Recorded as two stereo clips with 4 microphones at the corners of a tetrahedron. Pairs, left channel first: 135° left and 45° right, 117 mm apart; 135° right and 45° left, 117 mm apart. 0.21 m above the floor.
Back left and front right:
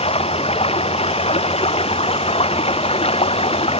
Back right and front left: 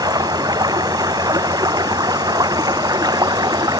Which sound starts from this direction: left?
Running water, at 0.0 s.